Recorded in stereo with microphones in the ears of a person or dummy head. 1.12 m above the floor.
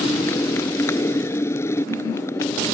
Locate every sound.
0.0 s a motorcycle: 20° left (ahead or behind)